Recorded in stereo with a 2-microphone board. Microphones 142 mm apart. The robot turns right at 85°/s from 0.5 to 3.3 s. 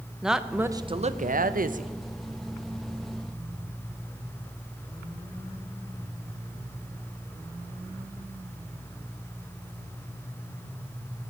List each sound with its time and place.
0.2 s a woman speaking: 175° right, 0.6 m; by 1.9 s 55° right, 0.6 m